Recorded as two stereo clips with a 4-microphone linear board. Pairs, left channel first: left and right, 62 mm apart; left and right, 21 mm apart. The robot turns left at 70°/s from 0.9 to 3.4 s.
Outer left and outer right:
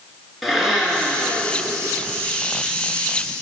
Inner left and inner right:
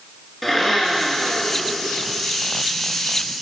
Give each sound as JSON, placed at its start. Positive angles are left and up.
{"t": 0.4, "sound": "a blender", "azimuth_deg": -5, "distance_m": 2.0}